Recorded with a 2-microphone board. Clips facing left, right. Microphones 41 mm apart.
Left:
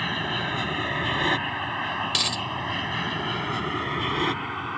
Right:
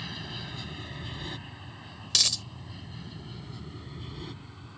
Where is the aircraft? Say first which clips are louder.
Left 12 dB; 50° left (ahead or behind); by 4.8 s 65° left (ahead or behind).